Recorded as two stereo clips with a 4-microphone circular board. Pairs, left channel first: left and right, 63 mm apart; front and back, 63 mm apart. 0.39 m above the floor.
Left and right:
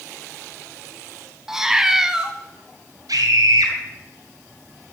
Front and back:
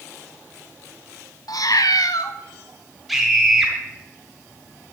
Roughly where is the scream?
Right.